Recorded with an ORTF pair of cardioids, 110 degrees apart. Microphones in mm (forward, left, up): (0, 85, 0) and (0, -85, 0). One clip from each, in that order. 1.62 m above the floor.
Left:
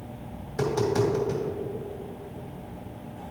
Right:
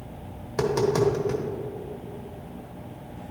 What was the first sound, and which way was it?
Tapping, 60° right.